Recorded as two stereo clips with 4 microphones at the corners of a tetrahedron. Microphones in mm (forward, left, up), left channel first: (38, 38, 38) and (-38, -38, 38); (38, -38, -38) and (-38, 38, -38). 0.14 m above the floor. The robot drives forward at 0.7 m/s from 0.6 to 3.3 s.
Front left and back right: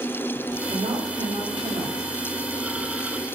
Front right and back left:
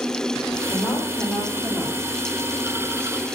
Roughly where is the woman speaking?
Right.